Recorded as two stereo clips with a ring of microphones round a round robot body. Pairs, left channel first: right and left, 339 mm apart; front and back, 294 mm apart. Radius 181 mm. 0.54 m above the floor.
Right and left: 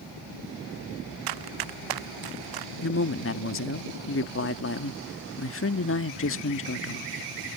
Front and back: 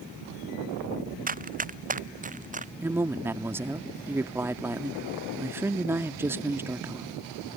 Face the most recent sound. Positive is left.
turn(degrees=-105)